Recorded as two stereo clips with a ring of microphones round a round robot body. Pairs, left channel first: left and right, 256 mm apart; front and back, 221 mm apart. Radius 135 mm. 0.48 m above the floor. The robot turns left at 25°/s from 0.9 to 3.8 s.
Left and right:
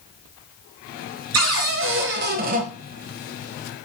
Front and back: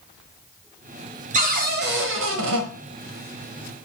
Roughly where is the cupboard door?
Behind right.